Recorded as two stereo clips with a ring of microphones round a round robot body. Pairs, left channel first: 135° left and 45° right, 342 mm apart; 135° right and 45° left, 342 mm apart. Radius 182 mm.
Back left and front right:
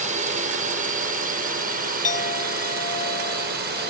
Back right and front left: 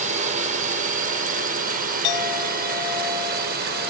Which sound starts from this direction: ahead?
A drone, at 0.0 s.